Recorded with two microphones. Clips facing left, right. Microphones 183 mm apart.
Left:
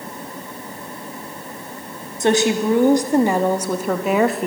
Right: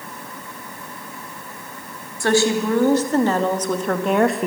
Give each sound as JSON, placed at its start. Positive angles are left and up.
{"t": 2.2, "sound": "a woman speaking", "side_deg": 20, "distance_m": 3.0}